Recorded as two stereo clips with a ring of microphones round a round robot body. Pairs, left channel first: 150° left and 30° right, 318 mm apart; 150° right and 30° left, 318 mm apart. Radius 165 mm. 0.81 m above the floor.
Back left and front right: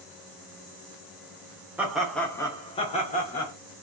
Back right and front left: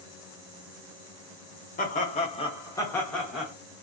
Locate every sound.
1.8 s laughter: 110° right, 0.9 m; by 3.5 s 115° left, 0.9 m